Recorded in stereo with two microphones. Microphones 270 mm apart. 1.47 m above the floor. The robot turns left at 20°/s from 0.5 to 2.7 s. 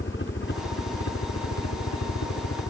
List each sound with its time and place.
0.0 s a helicopter: 45° left (ahead or behind); by 2.7 s 70° left (ahead or behind)